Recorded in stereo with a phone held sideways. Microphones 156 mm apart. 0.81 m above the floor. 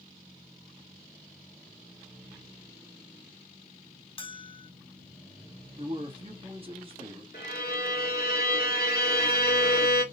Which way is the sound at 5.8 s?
35° right (ahead or behind).